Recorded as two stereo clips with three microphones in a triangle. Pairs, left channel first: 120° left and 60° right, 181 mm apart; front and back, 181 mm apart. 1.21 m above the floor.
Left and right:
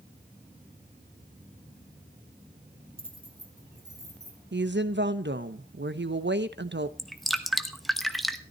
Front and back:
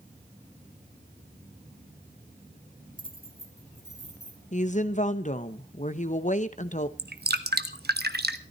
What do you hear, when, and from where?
3.0 s keys jangling: 115° right, 1.0 m; by 4.4 s 135° right, 3 m
4.5 s a woman speaking: 50° right, 1.0 m
7.0 s dripping: 150° right, 0.9 m